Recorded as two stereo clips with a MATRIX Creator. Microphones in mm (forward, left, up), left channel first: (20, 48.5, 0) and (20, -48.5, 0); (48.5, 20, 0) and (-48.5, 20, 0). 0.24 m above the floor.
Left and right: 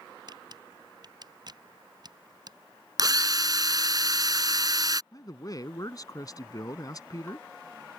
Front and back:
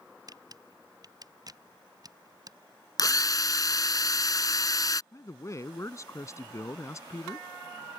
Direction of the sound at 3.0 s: 45° right.